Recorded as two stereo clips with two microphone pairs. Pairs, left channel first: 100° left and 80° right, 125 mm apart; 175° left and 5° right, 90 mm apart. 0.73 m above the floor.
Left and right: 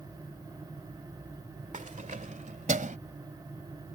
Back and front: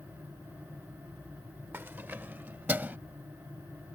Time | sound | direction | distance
1.7 | keys jangling | 70° right | ?